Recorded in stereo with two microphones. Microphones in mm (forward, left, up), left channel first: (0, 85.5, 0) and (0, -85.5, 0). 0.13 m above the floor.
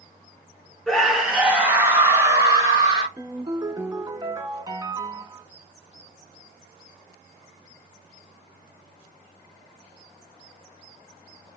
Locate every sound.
0.9 s a scream: 5° left (ahead or behind), 1.0 m; by 3.1 s 25° right (ahead or behind), 1.5 m
3.2 s a ringtone: 25° right (ahead or behind), 0.5 m